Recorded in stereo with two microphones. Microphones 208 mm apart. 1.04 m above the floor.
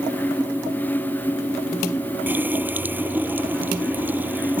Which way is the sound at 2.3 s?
10° right (ahead or behind).